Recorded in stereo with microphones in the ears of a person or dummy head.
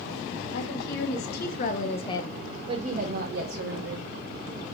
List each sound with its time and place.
0.5 s a woman speaking: 60° left (ahead or behind), 2.5 m; by 4.1 s 80° right, 1.9 m